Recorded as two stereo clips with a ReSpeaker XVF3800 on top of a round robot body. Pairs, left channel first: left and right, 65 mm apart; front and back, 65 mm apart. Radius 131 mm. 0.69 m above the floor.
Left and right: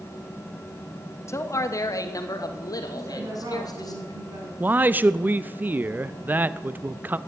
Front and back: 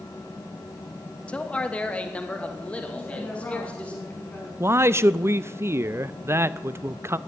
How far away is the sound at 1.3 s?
About 1.1 m.